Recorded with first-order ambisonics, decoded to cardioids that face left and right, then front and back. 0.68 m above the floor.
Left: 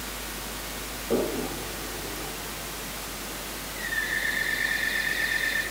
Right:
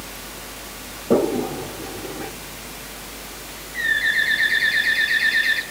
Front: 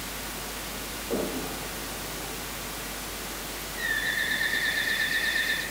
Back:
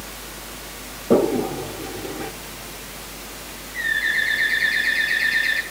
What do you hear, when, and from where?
1.1 s a toilet flushing: 145° right, 0.9 m
3.7 s a bird: 115° right, 6 m